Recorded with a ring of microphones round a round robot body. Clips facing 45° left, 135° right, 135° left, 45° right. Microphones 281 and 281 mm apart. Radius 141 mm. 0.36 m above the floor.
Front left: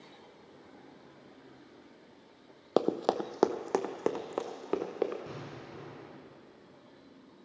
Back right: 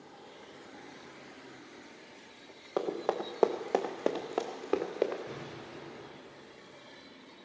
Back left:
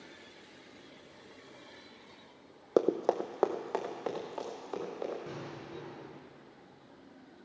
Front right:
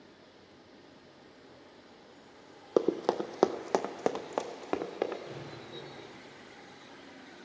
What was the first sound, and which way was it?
Running footsteps, 40° left.